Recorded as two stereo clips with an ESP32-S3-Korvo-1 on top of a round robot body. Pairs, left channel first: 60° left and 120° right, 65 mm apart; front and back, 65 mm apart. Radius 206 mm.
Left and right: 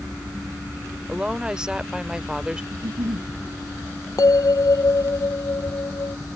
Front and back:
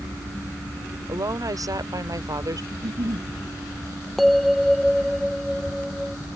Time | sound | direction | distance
1.1 | a woman speaking | 160° left | ?
2.7 | a giggle | 150° right | ?
4.2 | a bell | 90° left | ?